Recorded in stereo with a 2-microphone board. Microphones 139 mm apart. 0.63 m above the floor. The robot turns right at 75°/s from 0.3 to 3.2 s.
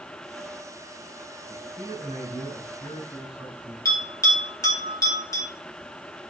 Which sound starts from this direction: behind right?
A man speaking, at 1.5 s.